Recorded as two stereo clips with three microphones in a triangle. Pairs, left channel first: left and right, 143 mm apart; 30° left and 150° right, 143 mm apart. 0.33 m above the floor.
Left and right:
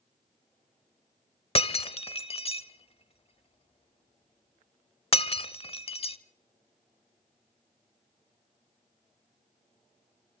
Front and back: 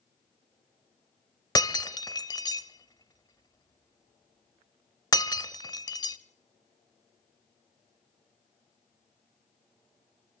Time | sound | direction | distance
1.6 | breaking glass | 75° left | 0.7 m